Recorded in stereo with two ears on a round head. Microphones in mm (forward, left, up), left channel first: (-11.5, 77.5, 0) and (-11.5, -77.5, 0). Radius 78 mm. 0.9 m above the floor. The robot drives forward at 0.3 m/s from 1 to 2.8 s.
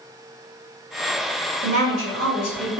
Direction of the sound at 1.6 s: 45° right (ahead or behind).